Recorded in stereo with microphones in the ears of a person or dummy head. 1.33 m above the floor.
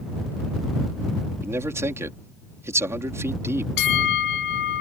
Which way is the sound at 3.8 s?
55° left (ahead or behind).